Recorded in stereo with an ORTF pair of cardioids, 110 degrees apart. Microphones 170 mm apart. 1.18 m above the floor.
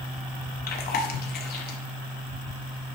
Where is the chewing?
70° left, 1.5 m.